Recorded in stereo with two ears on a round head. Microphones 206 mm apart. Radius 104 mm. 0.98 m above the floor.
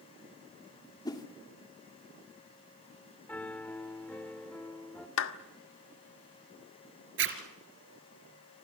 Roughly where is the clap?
Left.